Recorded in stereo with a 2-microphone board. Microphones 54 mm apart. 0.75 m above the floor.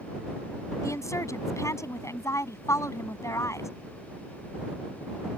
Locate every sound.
0.8 s a woman speaking: 85° left